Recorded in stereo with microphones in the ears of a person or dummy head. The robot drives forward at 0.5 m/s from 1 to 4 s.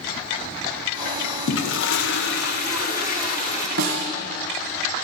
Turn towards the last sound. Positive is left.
turn(degrees=-55)  # may be behind; listen again after turning